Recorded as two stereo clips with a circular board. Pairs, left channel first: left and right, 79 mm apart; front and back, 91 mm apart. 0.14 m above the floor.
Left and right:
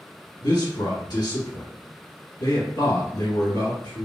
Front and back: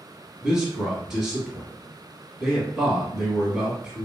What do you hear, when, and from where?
0.4 s a man speaking: 100° left, 1.6 m